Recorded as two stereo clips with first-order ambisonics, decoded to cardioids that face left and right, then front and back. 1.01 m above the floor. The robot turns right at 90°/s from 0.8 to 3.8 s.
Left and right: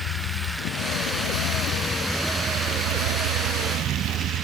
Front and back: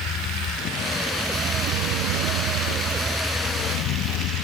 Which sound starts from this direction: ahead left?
A vehicle, at 0.0 s.